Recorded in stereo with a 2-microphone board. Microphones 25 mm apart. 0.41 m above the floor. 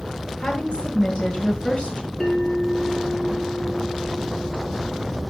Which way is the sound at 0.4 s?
45° left (ahead or behind).